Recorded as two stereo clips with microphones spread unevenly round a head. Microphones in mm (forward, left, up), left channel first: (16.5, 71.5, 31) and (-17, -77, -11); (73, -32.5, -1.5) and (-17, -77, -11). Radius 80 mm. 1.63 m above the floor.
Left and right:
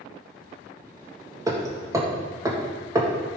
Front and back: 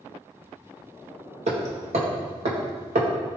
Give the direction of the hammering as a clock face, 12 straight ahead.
6 o'clock.